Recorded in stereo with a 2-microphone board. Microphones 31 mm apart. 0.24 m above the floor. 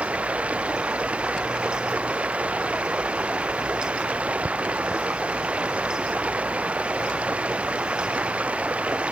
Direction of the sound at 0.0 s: 40° right (ahead or behind).